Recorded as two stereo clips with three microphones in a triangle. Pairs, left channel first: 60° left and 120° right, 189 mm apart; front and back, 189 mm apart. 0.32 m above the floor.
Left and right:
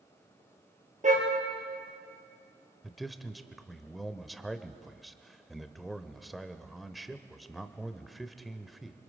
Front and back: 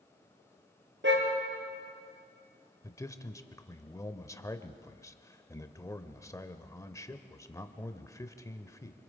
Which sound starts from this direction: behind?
A car horn, at 1.0 s.